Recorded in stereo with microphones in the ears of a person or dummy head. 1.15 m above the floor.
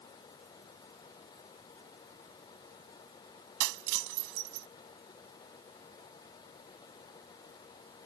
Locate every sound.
0.0 s a fan: 15° left (ahead or behind)
3.6 s breaking glass: 60° right (ahead or behind)